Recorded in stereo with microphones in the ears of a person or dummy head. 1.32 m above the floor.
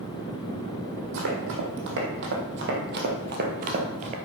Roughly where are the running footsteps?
Right.